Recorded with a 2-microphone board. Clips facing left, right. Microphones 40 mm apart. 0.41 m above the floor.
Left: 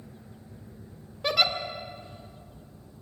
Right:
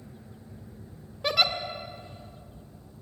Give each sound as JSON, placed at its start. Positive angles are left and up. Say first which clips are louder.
{"t": 1.2, "sound": "a giggle", "louder": "even", "side_deg": 0, "distance_m": 1.3}